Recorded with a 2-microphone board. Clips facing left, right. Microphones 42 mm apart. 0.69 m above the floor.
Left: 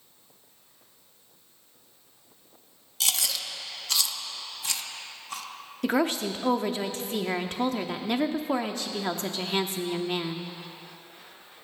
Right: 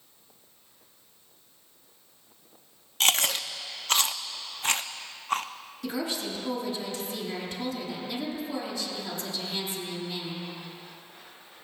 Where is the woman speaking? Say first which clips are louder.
Left 7 dB; 55° left (ahead or behind), 1.0 m.